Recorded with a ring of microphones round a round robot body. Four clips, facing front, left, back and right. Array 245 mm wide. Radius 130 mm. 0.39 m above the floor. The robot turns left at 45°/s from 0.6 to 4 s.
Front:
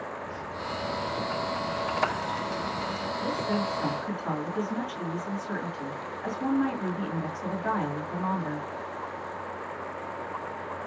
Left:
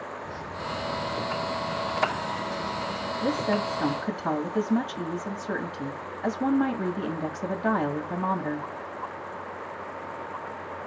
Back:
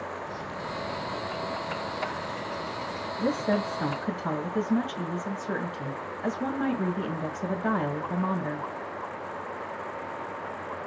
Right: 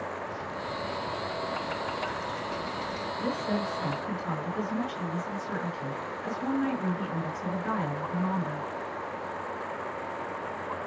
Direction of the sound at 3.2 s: 155° left.